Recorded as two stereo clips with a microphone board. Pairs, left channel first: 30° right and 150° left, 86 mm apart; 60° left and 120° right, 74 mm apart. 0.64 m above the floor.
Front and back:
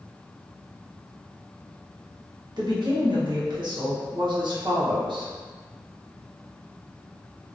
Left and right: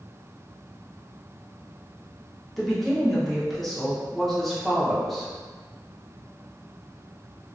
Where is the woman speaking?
150° left, 1.0 m.